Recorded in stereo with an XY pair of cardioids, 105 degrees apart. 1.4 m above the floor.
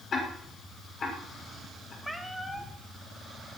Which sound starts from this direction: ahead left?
Ticking, at 0.1 s.